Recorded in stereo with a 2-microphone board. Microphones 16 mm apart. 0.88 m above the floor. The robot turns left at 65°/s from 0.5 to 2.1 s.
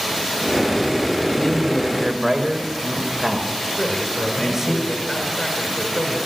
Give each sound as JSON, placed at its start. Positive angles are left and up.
{"t": 1.3, "sound": "a man speaking", "azimuth_deg": 25, "distance_m": 4.5}
{"t": 3.8, "sound": "a man speaking", "side_deg": 25, "distance_m": 4.0}